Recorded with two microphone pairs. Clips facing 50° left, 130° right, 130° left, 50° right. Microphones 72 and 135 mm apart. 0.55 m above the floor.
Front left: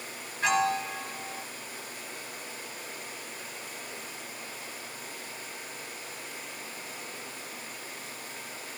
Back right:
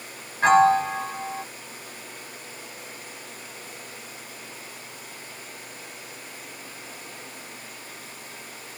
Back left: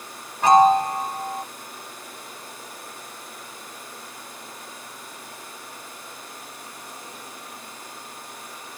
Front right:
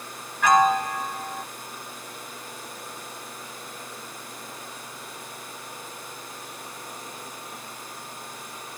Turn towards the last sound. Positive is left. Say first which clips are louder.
# back right 10 dB, back left 5 dB
turn(degrees=-175)